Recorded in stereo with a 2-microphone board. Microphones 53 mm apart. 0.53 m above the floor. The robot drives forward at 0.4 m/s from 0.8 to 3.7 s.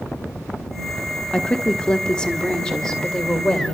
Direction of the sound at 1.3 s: 20° left (ahead or behind).